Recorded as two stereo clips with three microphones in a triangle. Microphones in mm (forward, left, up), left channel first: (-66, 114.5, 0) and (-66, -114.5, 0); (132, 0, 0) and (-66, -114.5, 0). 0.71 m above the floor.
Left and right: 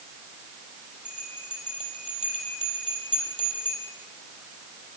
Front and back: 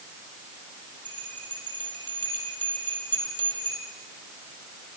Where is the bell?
150° right, 4 m.